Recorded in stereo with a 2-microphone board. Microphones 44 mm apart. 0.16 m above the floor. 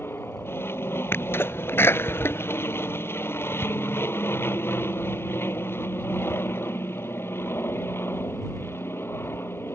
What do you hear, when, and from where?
0.0 s an aircraft: 60° left (ahead or behind)
1.1 s a sneeze: 60° left (ahead or behind)